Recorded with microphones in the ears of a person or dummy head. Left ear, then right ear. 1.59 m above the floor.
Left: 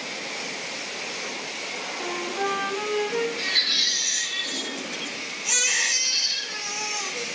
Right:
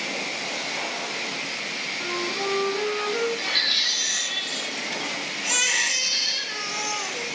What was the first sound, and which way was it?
A flute, 50° left (ahead or behind).